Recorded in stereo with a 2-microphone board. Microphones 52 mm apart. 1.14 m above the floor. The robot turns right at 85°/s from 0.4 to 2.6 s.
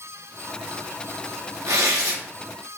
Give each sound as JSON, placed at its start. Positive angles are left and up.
{"t": 1.7, "sound": "tearing paper", "azimuth_deg": -110, "distance_m": 0.7}